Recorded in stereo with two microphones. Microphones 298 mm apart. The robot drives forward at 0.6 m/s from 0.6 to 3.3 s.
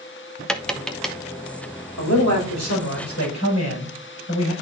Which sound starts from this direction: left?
A man speaking, at 2.0 s.